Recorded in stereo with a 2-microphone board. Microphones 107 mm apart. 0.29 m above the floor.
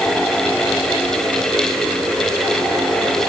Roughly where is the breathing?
No breathing in this recording.